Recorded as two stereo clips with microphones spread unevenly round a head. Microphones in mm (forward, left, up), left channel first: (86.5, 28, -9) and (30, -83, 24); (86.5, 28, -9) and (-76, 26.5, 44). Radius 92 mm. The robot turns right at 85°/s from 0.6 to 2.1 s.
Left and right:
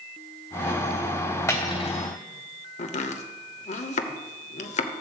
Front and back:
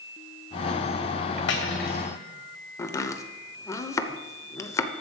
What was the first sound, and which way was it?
Cutlery clinking, 5° right.